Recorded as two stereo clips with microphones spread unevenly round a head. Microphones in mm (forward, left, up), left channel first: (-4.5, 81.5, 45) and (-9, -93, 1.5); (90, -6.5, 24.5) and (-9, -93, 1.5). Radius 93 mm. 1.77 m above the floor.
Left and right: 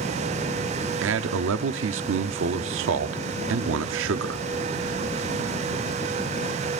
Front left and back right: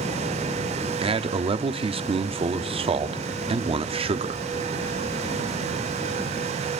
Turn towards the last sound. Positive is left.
turn(degrees=-90)